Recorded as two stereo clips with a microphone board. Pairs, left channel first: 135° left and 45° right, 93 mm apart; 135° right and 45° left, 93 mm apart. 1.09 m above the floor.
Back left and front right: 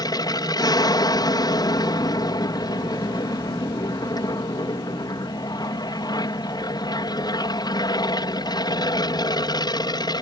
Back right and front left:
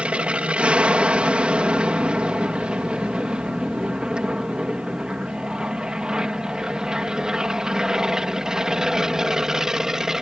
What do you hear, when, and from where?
0.0 s an aircraft: 115° left; by 10.2 s 125° left